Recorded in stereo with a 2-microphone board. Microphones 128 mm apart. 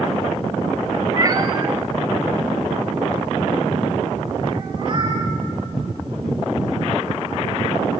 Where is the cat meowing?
30° right (ahead or behind), 0.9 m; by 5.2 s 40° right (ahead or behind), 4 m.